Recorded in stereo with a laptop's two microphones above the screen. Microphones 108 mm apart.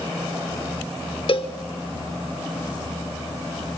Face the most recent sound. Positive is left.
turn(degrees=55)  # may be behind; listen again after turning